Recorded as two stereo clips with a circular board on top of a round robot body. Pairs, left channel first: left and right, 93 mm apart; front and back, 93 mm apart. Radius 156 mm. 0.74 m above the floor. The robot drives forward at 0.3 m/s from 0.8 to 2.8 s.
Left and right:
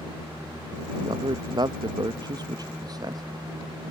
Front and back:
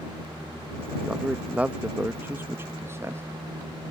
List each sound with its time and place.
1.0 s a man speaking: 100° right; by 3.2 s 120° right